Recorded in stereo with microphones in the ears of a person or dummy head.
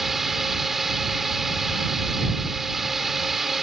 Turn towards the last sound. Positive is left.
turn(degrees=-5)  # may be behind; listen again after turning